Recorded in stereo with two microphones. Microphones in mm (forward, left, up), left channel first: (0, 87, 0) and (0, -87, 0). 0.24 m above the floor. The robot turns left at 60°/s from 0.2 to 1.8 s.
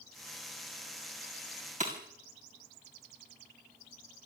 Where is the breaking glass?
45° right (ahead or behind), 5 m.